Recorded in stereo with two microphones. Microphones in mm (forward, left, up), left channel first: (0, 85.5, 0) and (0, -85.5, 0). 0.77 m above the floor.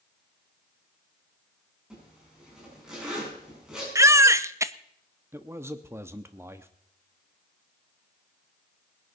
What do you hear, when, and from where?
1.9 s a zipper: 5° right (ahead or behind), 6.5 m
4.0 s a baby crying: 15° right (ahead or behind), 0.6 m
5.3 s a man speaking: 15° right (ahead or behind), 0.9 m